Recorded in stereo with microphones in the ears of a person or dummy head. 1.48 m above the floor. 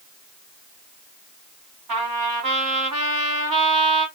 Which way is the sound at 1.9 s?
40° right (ahead or behind).